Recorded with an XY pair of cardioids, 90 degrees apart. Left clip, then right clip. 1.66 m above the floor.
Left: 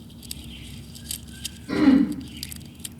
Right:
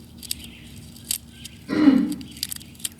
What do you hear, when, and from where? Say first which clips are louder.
1.7 s throat clearing: right 1 dB; 10° right, 1.2 m